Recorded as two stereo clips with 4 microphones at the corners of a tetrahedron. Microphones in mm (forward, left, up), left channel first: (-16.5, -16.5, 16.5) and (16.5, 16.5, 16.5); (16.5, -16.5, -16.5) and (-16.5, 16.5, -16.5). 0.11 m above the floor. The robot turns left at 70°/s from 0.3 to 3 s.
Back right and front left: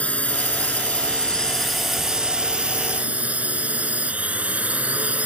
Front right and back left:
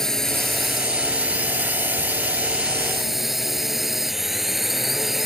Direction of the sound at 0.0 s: 120° right.